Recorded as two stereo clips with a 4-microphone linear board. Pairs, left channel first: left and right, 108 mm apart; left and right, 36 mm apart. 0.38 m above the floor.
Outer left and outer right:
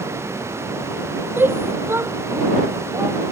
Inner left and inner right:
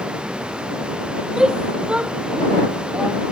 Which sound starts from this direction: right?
A shout, at 1.4 s.